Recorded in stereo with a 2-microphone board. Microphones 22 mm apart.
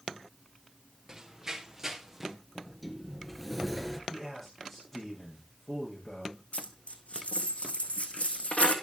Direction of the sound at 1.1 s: 20° right (ahead or behind).